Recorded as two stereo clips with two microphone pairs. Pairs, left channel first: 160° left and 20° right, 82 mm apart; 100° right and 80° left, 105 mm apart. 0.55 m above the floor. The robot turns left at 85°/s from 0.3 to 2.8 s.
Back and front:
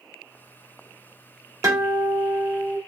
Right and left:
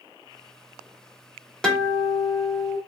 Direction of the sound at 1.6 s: 20° right.